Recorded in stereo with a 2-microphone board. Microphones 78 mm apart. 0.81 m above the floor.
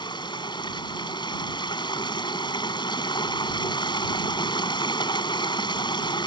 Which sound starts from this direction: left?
Running water, at 0.0 s.